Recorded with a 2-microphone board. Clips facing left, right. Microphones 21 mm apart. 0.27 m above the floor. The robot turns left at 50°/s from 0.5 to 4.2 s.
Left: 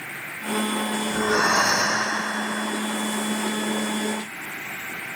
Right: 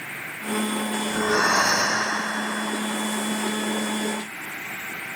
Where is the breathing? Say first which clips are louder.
Even; 5° left (ahead or behind), 1.7 m; by 2.1 s 25° left (ahead or behind), 1.7 m.